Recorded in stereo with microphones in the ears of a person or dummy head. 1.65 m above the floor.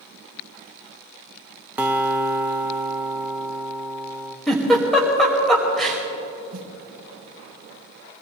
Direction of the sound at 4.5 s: Centre (ahead or behind).